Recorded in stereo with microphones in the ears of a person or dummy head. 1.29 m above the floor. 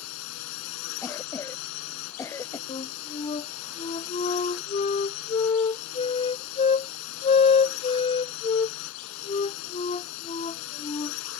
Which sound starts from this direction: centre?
A cough, at 1.0 s.